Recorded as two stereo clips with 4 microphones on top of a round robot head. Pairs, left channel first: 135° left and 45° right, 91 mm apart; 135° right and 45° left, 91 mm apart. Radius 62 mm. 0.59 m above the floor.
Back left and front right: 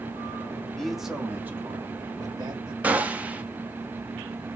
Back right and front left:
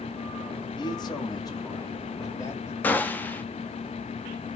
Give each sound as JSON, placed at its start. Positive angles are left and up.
{"t": 0.8, "sound": "a man speaking", "azimuth_deg": -145, "distance_m": 1.1}
{"t": 2.8, "sound": "a gunshot", "azimuth_deg": -95, "distance_m": 0.8}